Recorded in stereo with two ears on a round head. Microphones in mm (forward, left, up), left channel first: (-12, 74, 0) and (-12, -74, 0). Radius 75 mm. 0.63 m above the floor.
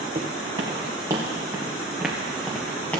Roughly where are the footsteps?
Right.